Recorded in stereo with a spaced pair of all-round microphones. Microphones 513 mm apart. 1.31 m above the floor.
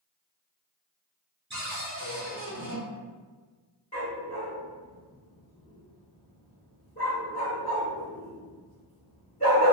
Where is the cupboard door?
35° right (ahead or behind), 0.9 m.